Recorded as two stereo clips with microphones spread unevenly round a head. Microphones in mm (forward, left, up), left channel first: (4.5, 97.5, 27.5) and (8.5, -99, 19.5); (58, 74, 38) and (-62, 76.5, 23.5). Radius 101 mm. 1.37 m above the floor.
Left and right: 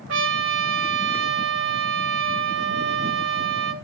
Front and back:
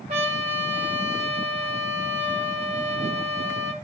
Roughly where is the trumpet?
Behind right.